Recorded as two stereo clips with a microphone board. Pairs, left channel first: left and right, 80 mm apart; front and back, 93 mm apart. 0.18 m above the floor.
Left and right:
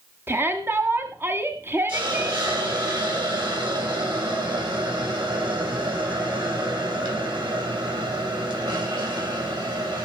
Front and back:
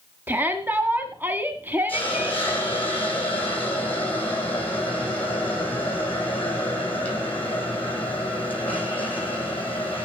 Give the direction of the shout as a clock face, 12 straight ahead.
4 o'clock.